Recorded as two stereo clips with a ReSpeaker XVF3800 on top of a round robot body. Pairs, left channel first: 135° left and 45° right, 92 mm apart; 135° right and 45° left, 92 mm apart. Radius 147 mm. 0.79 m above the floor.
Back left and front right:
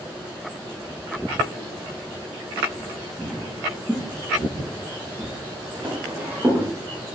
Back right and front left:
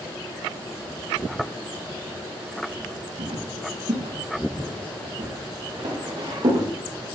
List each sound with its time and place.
3.2 s footsteps: 45° left, 5 m; by 6.7 s 20° left, 6 m